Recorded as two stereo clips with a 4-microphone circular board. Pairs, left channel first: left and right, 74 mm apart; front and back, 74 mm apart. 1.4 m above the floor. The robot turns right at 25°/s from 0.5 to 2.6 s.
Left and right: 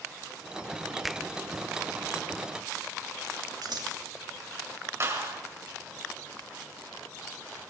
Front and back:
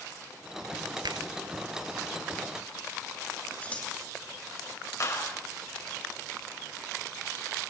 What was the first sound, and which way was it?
A finger snap, straight behind.